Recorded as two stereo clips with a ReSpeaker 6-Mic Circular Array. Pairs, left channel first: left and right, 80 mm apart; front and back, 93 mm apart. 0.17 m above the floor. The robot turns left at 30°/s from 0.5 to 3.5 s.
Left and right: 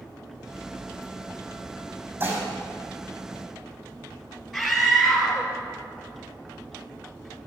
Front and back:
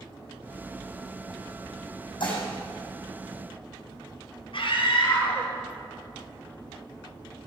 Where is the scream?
5° left, 4 m.